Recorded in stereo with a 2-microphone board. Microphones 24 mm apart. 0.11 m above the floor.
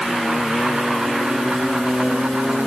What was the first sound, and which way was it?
Only background noise.